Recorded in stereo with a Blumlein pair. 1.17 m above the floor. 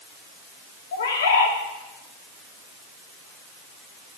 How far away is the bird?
About 1.8 m.